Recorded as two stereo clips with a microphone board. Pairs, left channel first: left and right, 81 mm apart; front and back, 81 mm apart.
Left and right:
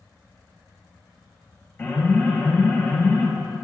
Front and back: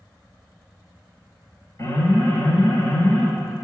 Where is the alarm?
25° left, 3.5 m.